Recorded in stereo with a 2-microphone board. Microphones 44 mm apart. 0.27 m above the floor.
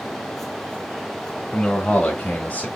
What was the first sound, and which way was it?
A man speaking, 25° left (ahead or behind).